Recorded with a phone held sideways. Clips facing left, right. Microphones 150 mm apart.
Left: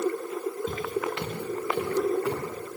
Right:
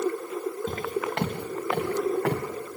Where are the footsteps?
45° right (ahead or behind), 4.5 m; by 2.4 s 70° right (ahead or behind), 4.5 m.